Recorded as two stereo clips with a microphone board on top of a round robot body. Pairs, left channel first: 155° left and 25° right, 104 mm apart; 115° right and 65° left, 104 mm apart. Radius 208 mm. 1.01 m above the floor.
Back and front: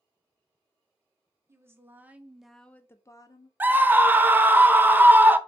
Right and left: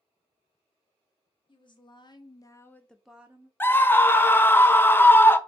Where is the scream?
70° right, 0.6 m.